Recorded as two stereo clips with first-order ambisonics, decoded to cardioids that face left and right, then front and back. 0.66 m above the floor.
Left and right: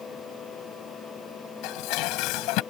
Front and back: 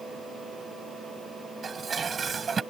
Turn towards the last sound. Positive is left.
turn(degrees=110)